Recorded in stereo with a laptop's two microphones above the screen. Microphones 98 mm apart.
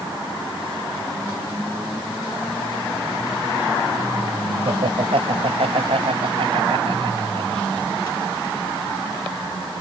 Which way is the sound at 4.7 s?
85° right.